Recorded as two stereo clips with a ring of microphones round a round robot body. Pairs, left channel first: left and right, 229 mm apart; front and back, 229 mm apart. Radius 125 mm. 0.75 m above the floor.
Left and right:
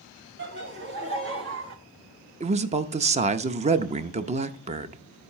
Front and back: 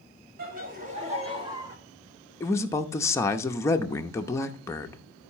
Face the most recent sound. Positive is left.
turn(degrees=-65)